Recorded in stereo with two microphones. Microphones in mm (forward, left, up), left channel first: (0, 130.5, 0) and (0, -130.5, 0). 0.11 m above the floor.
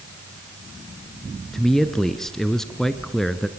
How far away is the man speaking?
About 1.5 m.